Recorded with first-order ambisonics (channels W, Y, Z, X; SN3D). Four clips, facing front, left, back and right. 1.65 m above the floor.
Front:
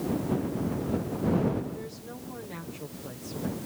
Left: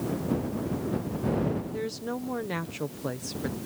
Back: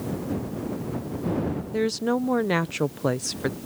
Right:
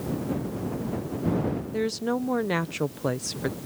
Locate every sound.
1.7 s a woman speaking: 160° right